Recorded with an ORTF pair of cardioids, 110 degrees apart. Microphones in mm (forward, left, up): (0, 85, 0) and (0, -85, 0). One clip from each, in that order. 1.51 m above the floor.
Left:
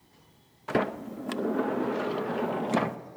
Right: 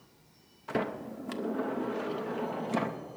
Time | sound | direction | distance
0.7 | a sliding door | 25° left | 0.5 m